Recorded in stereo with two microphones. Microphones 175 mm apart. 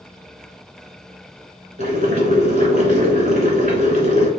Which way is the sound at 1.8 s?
50° right (ahead or behind).